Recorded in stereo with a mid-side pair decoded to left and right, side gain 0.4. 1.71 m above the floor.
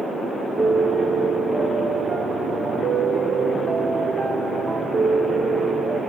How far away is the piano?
About 0.5 m.